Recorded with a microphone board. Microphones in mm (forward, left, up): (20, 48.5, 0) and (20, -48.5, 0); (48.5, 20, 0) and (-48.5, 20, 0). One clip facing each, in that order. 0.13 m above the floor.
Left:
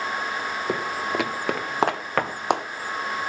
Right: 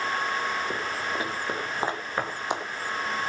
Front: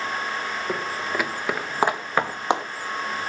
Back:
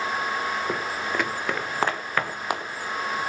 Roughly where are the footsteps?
Left.